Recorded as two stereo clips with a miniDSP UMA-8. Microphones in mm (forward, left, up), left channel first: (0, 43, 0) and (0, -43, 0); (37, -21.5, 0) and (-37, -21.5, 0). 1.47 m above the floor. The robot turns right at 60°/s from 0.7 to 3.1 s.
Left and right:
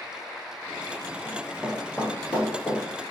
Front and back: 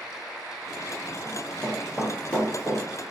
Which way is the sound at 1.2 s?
55° right.